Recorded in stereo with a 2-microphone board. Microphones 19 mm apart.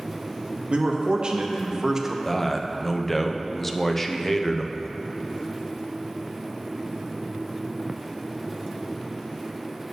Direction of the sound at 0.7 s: 65° right (ahead or behind).